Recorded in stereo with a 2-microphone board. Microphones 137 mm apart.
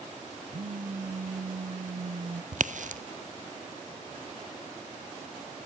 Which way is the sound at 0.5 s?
75° right (ahead or behind).